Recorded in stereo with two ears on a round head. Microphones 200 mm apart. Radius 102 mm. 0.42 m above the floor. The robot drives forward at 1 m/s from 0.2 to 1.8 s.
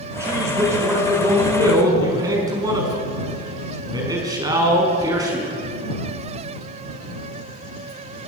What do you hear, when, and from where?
0.2 s a man speaking: 15° right (ahead or behind), 6.5 m; by 5.6 s 20° right (ahead or behind), 5 m